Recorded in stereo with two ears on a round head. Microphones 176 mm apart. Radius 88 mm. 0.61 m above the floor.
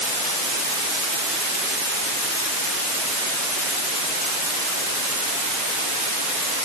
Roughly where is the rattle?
I don't hear a rattle.